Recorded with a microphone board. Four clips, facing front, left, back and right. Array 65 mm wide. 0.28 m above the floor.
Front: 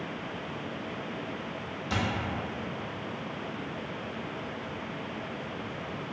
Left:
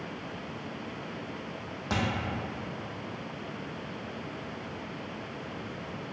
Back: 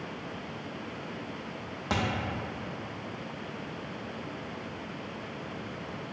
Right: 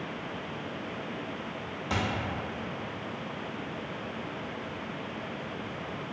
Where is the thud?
160° left, 1.2 m.